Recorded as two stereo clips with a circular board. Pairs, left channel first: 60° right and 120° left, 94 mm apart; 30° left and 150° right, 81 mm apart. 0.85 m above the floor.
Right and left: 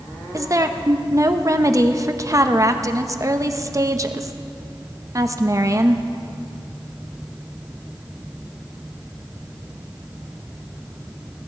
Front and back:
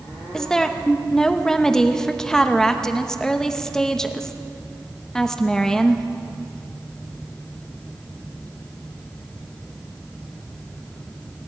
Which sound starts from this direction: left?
A woman speaking, at 0.3 s.